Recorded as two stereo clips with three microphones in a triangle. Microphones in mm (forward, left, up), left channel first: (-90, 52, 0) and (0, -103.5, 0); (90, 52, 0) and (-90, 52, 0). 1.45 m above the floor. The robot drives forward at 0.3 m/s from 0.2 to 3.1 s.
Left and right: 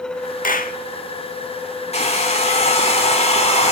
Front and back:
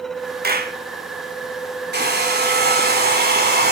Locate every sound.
0.4 s a clap: 155° left, 1.7 m; by 0.8 s 160° left, 1.8 m
1.9 s a hair dryer: 170° left, 4 m